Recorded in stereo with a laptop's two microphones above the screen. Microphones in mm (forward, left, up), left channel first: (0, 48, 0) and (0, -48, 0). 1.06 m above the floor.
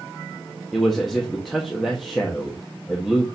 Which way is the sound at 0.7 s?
Centre (ahead or behind).